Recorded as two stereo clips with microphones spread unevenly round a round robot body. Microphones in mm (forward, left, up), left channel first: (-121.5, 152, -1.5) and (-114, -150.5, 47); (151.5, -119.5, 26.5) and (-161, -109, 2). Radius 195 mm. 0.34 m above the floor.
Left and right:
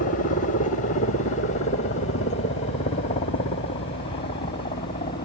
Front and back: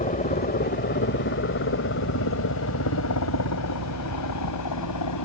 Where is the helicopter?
55° left; by 5.3 s 20° left.